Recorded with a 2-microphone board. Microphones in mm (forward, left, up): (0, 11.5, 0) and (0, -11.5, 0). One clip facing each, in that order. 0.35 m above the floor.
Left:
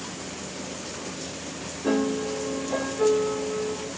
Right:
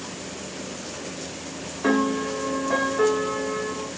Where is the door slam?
I don't hear a door slam.